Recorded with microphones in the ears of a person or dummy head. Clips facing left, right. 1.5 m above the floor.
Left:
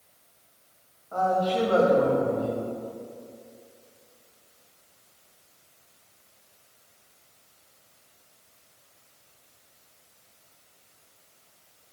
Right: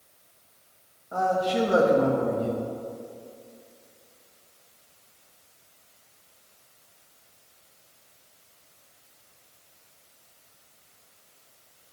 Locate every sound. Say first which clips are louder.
1.1 s a man speaking: even; 25° right (ahead or behind), 1.8 m